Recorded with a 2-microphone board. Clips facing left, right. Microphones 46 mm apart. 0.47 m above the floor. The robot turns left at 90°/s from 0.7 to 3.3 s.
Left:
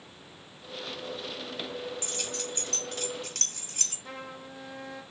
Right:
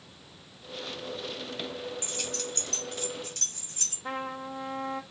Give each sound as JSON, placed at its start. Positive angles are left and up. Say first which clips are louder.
{"t": 2.0, "sound": "keys jangling", "louder": "even", "side_deg": -25, "distance_m": 1.8}
{"t": 4.0, "sound": "a trumpet", "louder": "right 9 dB", "side_deg": -40, "distance_m": 0.8}